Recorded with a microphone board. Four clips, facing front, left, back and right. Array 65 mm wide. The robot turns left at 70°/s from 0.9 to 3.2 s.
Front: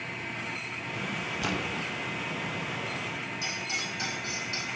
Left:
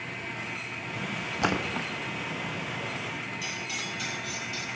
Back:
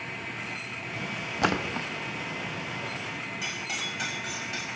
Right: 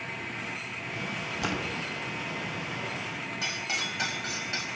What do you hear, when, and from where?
1.4 s a splash: 155° left, 1.2 m; by 1.9 s 120° left, 1.2 m
3.4 s cutlery clinking: 105° right, 4 m